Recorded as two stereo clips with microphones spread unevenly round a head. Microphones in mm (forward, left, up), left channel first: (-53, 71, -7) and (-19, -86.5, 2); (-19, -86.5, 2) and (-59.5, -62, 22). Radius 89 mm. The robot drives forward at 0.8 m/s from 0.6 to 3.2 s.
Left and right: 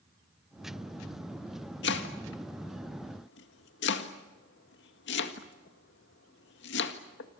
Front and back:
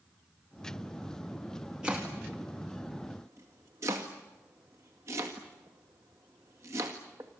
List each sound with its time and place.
1.8 s chopping: 70° left, 1.9 m; by 7.3 s 105° left, 1.9 m